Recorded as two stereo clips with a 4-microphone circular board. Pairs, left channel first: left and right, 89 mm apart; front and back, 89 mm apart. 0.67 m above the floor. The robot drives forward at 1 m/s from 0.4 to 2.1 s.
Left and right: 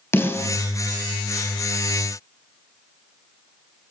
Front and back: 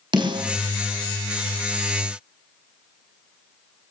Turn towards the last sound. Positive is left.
turn(degrees=160)